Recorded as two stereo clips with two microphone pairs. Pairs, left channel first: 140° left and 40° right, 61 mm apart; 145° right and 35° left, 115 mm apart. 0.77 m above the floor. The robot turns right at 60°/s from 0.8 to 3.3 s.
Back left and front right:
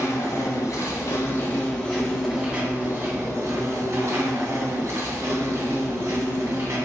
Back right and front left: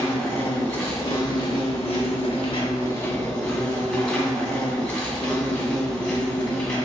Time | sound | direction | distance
0.0 | an insect | 145° left | 1.2 m